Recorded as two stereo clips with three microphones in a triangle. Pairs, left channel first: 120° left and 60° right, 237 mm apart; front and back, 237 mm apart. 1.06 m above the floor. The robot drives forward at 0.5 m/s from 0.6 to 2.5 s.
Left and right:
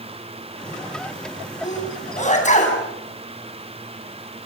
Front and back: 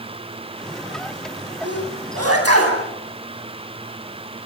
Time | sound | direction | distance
1.6 | a sneeze | straight behind | 9 m